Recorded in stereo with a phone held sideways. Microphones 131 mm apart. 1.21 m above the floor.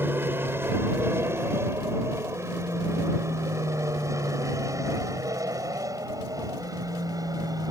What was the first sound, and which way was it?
An aircraft, 15° right (ahead or behind).